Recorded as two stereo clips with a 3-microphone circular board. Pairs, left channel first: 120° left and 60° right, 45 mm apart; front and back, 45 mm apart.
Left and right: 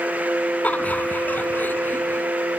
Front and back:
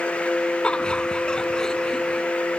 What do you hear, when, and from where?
0.6 s laughter: 65° left; by 2.2 s 85° left